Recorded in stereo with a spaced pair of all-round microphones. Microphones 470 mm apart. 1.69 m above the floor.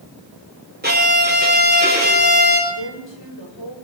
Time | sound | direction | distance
0.8 | a violin | 20° right (ahead or behind) | 6.5 m
2.7 | a woman speaking | 70° left (ahead or behind) | 9 m